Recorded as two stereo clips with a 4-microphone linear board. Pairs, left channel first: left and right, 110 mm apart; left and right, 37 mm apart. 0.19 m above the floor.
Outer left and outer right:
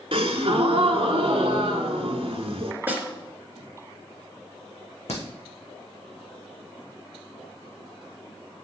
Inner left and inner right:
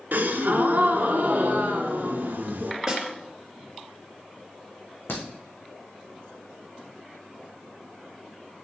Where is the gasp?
60° right (ahead or behind), 1.1 m.